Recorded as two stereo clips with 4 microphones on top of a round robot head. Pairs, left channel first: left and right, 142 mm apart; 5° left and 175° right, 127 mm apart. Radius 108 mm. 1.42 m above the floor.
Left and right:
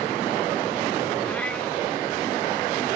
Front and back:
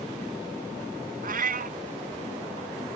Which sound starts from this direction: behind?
A cat meowing, at 1.2 s.